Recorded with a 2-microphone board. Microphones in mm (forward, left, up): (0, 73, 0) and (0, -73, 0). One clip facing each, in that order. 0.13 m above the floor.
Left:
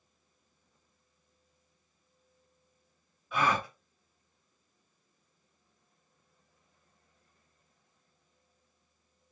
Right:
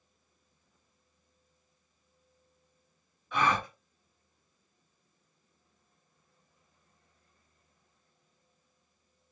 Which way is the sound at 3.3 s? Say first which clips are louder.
Right 1 dB; 5° left (ahead or behind).